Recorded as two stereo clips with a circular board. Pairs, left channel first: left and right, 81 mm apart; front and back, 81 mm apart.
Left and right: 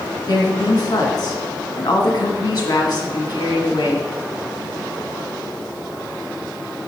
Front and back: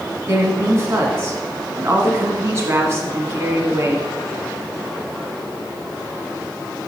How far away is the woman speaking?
About 1.9 m.